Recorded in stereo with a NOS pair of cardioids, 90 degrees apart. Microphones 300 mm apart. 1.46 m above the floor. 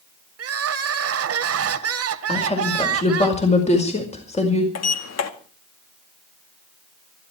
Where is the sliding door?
60° left, 2 m.